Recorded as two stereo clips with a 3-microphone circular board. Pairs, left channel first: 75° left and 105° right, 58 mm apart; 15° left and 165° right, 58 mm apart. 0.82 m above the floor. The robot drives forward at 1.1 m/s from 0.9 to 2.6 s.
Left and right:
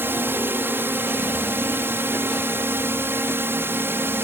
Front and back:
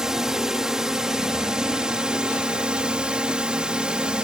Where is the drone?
90° right; by 4.2 s 100° right.